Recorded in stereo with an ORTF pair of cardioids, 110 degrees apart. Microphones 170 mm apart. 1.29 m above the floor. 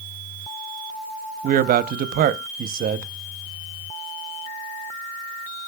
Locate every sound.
1.4 s a man speaking: 55° right, 0.8 m